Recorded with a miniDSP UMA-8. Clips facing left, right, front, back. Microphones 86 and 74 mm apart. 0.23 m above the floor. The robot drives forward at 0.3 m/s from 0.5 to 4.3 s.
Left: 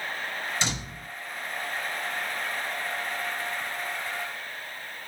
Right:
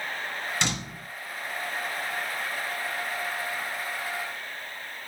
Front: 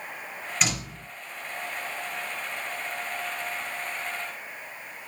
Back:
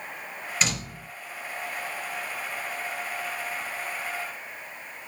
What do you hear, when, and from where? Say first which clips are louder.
0.6 s a door slam: right 1 dB, even; 85° right, 2.5 m; by 1.1 s 90° right, 2.5 m